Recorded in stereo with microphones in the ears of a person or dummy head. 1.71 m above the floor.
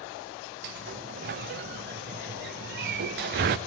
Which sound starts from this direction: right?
A sliding door, at 0.6 s.